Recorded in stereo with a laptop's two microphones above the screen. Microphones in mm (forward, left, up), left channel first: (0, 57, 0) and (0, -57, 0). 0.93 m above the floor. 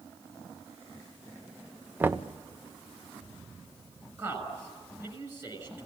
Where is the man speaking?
25° right (ahead or behind), 6 m.